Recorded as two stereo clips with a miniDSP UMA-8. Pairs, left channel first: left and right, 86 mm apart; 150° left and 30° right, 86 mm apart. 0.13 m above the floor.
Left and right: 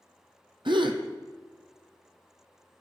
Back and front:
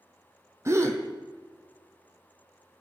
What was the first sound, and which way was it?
A gasp, 85° right.